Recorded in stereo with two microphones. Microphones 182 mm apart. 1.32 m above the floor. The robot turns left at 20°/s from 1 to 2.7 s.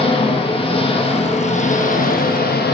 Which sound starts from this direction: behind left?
An engine running, at 0.0 s.